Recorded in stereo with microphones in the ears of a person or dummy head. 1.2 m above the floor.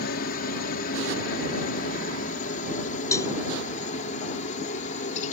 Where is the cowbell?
15° left (ahead or behind).